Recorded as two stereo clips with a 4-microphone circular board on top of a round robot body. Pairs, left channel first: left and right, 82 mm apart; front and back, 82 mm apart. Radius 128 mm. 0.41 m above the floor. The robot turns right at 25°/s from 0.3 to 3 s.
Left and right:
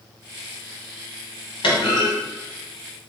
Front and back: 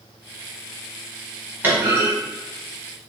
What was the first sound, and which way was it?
A clunk, 110° left.